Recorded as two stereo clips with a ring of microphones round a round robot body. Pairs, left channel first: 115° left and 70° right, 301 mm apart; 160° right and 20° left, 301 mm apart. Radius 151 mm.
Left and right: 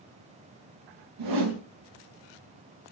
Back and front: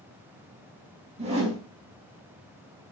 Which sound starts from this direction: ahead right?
A whoosh, at 1.2 s.